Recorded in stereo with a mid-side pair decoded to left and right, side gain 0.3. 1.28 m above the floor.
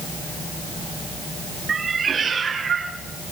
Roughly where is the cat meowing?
Ahead right.